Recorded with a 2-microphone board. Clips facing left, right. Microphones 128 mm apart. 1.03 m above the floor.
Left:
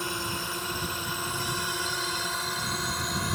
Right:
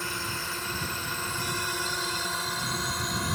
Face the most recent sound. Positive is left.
turn(degrees=5)  # may be behind; listen again after turning